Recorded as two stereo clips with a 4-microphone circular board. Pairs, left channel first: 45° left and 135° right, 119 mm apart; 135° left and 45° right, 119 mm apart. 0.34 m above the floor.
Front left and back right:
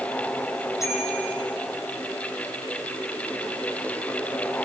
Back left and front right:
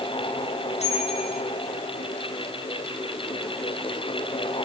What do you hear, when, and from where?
0.8 s a bicycle bell: 110° left, 9 m